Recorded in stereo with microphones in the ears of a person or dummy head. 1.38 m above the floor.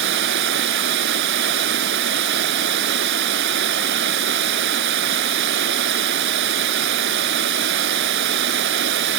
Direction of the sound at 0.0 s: 70° right (ahead or behind).